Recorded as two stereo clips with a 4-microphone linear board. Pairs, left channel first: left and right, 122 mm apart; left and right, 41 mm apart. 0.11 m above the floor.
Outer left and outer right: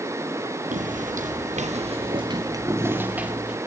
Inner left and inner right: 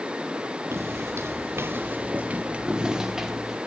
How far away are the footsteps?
About 2 m.